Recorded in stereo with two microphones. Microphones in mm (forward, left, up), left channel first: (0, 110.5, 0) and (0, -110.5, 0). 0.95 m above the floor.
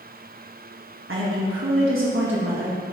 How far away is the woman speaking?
About 1.2 m.